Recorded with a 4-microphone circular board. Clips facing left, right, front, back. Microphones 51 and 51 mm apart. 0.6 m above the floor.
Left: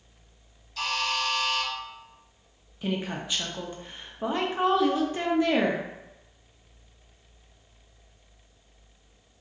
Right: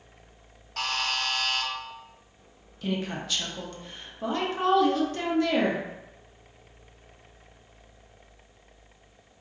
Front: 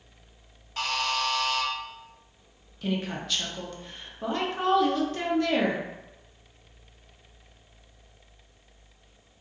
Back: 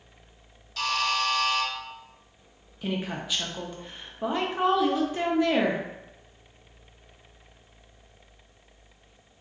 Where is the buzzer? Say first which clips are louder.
Left 1 dB, back 2 dB; 60° right, 0.8 m.